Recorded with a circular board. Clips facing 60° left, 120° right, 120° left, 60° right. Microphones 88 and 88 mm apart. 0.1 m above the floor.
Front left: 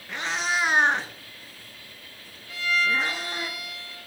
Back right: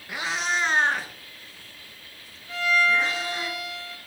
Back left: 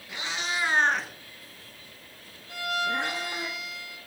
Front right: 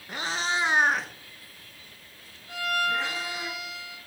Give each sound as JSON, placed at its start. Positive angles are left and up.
{"t": 0.1, "sound": "a cat meowing", "azimuth_deg": -45, "distance_m": 0.6}
{"t": 2.5, "sound": "a violin", "azimuth_deg": -65, "distance_m": 2.5}